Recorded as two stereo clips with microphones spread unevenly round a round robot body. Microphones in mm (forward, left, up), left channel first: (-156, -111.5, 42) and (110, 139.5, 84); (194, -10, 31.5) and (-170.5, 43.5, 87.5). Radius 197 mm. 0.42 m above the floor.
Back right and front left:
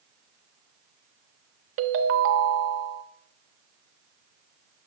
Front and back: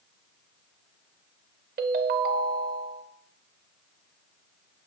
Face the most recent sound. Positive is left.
turn(degrees=105)